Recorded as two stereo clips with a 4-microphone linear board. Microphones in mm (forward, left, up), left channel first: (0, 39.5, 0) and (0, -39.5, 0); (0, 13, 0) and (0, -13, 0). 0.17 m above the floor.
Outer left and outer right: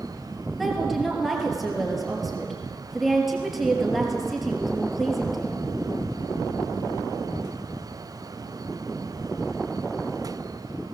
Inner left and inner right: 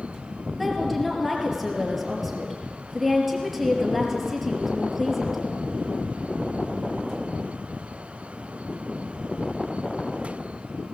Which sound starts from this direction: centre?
A woman speaking, at 0.6 s.